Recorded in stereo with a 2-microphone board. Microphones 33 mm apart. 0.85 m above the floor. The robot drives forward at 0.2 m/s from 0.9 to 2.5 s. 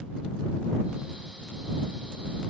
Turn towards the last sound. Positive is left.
No sound to turn to.